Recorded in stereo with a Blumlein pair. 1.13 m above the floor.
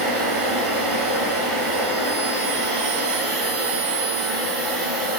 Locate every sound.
0.0 s a machine running: 35° right, 0.9 m